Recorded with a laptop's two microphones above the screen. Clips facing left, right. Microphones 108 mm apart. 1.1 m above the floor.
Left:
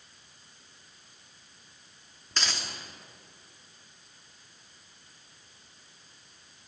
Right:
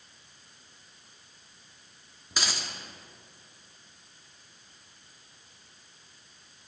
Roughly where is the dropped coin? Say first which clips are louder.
Right 1 dB; centre.